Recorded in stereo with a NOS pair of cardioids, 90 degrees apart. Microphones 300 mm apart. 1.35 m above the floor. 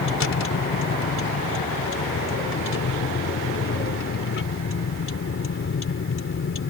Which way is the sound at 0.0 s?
40° left.